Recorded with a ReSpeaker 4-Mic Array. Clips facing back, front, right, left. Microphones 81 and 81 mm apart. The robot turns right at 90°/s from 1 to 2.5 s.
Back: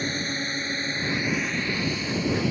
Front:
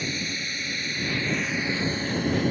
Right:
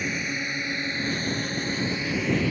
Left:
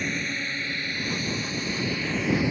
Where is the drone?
170° right; by 2.5 s 30° left.